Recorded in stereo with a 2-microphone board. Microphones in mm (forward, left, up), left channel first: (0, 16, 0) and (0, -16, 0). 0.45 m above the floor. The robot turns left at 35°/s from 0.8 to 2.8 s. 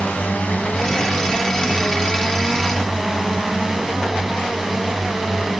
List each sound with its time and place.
0.0 s a drone: 65° left; by 5.6 s 5° right